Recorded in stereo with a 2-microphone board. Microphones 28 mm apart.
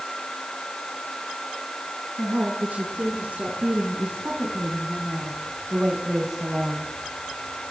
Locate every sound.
2.2 s a woman speaking: 65° right (ahead or behind), 5 m; by 6.9 s 5° right (ahead or behind), 2.5 m